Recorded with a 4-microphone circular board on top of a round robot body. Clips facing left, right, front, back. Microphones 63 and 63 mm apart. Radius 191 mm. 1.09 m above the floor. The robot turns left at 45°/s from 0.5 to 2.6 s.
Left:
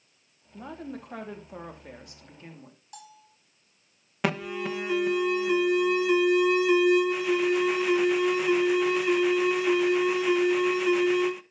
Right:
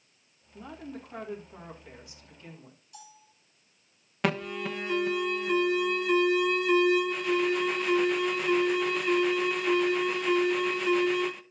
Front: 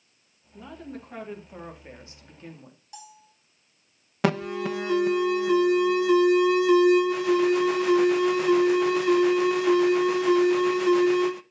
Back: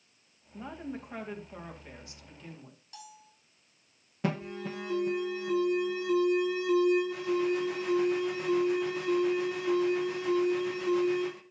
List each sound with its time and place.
0.5 s a woman speaking: 125° left, 3 m; by 2.8 s 30° left, 3 m
2.9 s a bell: 70° left, 3.5 m
4.2 s an alarm: 5° left, 0.8 m